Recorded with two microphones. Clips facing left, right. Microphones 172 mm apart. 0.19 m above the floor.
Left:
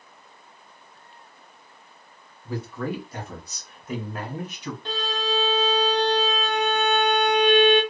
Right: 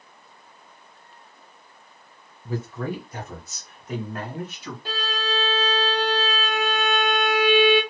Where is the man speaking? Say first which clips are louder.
Even; 25° right (ahead or behind), 1.9 m; by 4.8 s 20° left (ahead or behind), 1.6 m.